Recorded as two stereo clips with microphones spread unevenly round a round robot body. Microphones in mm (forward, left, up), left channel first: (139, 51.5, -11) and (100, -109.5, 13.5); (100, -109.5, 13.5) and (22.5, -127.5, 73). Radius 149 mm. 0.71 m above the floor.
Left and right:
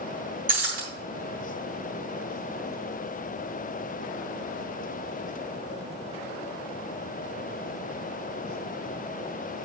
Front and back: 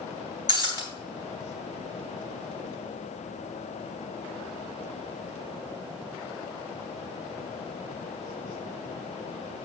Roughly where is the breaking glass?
Behind right.